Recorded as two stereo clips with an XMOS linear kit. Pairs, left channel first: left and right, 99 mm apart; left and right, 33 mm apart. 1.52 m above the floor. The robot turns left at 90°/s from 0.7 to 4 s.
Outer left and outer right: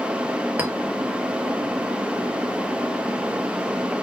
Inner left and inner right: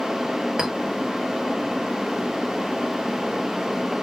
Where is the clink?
20° right (ahead or behind), 1.2 m.